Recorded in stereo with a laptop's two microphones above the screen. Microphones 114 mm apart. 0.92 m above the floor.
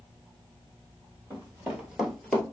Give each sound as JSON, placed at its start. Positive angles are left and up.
{"t": 1.3, "sound": "running footsteps", "side_deg": -30, "distance_m": 1.2}